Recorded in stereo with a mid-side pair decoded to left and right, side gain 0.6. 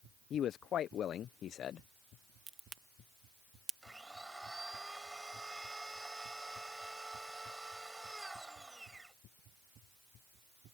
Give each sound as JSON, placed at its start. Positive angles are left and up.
{"t": 0.3, "sound": "a man speaking", "azimuth_deg": 50}
{"t": 2.5, "sound": "a crack", "azimuth_deg": -30}
{"t": 3.8, "sound": "a blender", "azimuth_deg": -10}